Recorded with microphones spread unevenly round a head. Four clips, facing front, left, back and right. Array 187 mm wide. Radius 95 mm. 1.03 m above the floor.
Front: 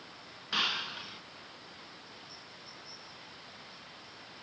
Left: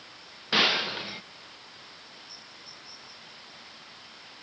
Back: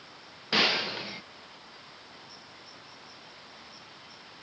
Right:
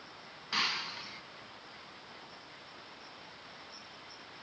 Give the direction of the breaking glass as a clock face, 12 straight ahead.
8 o'clock.